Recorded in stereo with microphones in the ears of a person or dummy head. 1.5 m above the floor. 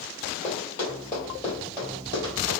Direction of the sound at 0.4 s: 25° left (ahead or behind).